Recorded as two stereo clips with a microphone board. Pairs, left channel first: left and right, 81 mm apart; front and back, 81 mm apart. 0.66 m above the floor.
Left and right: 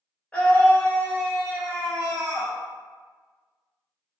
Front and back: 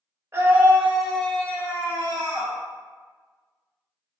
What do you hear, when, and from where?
0.3 s a scream: 150° left, 0.9 m; by 2.5 s straight ahead, 1.1 m